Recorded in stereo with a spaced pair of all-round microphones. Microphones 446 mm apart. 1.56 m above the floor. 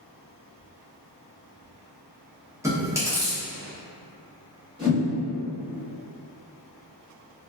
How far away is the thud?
No thud in this recording.